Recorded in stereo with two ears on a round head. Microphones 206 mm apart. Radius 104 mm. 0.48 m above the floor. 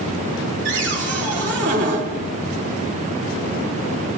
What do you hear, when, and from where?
0.7 s a cupboard door: 55° right (ahead or behind), 1.4 m